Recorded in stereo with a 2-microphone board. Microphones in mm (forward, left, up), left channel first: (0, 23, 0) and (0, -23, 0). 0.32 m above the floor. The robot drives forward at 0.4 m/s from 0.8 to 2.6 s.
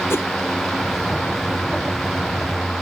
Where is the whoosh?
70° left (ahead or behind).